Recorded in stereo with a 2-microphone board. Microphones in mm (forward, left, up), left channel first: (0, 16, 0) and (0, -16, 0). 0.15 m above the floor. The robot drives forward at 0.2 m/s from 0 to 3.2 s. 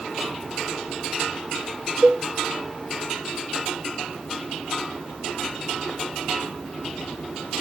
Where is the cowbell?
60° right (ahead or behind), 0.6 m.